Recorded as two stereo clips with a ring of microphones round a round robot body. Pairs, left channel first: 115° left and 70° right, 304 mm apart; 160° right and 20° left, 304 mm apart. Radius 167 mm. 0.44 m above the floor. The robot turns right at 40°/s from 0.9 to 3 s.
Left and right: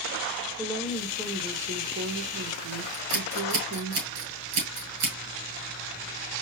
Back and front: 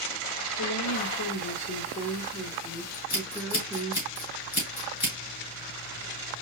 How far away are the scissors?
About 2.5 m.